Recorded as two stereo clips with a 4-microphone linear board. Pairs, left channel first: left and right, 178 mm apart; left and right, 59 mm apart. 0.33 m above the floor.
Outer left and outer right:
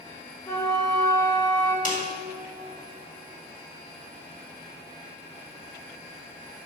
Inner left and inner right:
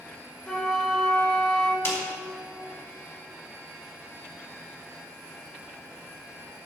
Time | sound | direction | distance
0.5 | a flute | 20° left (ahead or behind) | 1.3 m
1.9 | a snare drum | 50° left (ahead or behind) | 2 m